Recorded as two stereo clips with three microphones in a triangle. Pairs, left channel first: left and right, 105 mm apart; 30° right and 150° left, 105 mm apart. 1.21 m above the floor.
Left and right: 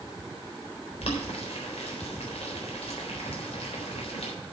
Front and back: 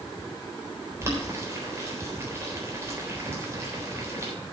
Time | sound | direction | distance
1.0 | boiling | 85° left | 3.5 m